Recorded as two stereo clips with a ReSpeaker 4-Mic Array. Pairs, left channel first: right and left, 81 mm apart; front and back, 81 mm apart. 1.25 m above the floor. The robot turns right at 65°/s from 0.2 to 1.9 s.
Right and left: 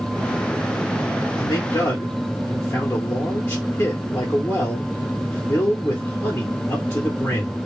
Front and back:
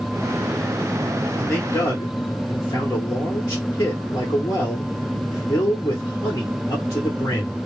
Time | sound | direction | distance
1.4 | a man speaking | 75° right | 1.2 m